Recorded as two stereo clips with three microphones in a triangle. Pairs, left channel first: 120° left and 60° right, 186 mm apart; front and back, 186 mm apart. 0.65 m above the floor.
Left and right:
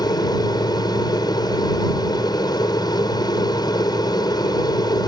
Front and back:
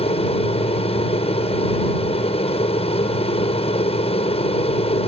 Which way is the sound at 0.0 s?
55° left.